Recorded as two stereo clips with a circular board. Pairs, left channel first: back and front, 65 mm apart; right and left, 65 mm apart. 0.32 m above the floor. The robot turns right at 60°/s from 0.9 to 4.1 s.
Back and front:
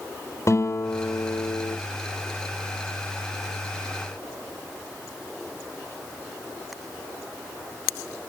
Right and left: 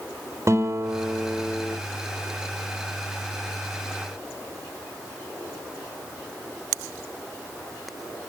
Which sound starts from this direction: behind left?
A guitar, at 0.5 s.